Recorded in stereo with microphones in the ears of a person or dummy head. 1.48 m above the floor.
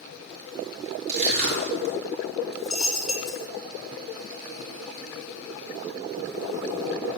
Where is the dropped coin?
5° right (ahead or behind), 1.2 m.